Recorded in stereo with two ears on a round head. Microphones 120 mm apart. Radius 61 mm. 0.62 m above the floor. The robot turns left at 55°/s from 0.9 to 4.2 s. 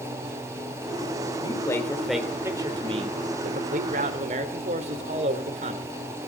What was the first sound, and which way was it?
A man speaking, 35° left.